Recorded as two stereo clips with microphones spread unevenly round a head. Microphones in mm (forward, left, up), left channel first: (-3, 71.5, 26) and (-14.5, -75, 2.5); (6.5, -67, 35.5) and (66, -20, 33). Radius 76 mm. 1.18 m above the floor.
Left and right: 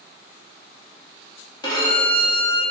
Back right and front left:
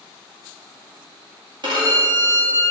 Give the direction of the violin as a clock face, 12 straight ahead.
11 o'clock.